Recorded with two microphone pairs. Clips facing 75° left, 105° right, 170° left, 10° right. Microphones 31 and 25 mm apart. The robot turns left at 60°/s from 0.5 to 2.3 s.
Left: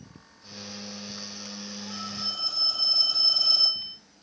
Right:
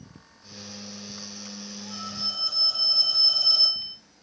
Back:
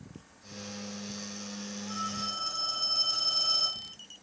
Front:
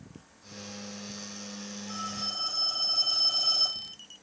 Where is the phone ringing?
115° left, 1.7 m; by 3.9 s 90° left, 1.7 m.